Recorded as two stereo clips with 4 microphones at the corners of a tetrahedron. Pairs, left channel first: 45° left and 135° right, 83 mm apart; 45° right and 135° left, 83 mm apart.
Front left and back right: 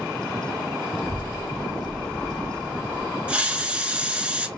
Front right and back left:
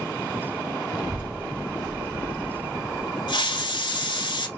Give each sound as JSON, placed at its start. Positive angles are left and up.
{"t": 0.9, "sound": "a child speaking", "azimuth_deg": 60, "distance_m": 1.6}
{"t": 3.3, "sound": "a hiss", "azimuth_deg": -60, "distance_m": 1.0}